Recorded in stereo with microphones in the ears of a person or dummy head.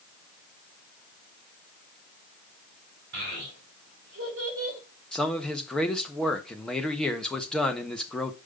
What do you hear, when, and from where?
3.1 s a child speaking: 65° right (ahead or behind), 3.5 m; by 4.8 s 50° right (ahead or behind), 3.5 m
5.1 s a man speaking: centre (ahead or behind), 1.1 m